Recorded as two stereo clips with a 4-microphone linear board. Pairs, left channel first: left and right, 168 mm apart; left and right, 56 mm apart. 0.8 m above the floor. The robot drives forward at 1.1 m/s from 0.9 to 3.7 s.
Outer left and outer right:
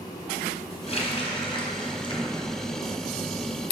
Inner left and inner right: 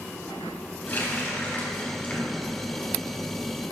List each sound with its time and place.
0.9 s a running tap: 35° left (ahead or behind), 4 m; by 2.9 s 25° left (ahead or behind), 5.5 m